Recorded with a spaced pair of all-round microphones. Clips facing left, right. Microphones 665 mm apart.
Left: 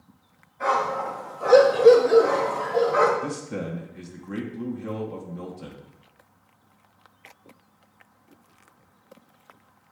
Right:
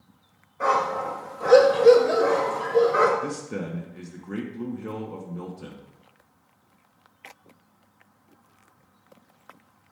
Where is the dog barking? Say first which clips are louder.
Right 1 dB; 70° right (ahead or behind), 2.5 m; by 3.1 s 30° left (ahead or behind), 2 m.